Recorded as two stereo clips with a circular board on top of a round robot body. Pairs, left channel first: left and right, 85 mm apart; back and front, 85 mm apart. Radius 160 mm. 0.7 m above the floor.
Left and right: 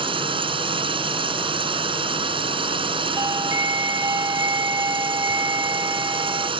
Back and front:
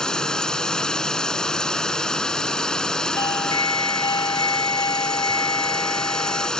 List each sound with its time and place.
0.0 s a drone: 100° right
3.2 s a doorbell: 140° right